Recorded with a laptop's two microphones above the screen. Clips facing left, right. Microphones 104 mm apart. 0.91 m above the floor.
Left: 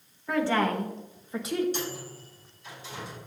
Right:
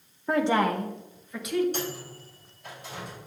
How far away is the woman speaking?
About 0.8 m.